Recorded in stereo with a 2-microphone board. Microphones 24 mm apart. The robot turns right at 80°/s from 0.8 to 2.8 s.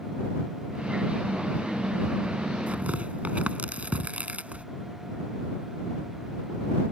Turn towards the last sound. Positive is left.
turn(degrees=-75)  # may be behind; listen again after turning